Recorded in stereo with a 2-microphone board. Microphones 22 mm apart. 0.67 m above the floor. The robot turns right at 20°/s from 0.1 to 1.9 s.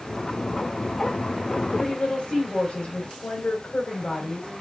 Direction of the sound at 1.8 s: 60° left (ahead or behind).